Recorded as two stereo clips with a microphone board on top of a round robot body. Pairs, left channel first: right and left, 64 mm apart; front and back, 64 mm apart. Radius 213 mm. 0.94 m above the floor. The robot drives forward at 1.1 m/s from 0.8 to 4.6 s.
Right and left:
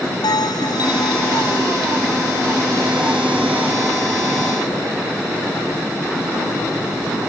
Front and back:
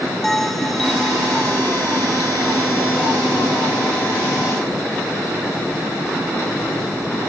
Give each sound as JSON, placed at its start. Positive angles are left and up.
{"t": 0.2, "sound": "a bell", "azimuth_deg": -85}